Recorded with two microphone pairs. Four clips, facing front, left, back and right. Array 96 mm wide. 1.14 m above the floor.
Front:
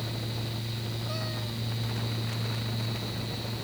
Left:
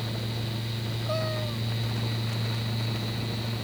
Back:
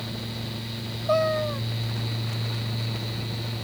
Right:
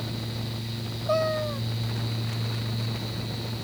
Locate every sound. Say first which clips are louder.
1.1 s a cat meowing: right 7 dB, back 20 dB; 160° right